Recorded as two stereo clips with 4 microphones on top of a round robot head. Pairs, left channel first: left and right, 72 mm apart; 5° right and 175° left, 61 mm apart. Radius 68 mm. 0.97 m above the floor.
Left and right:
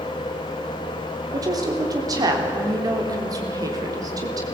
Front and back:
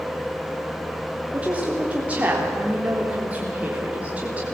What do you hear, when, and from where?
1.3 s a woman speaking: 115° right, 3.5 m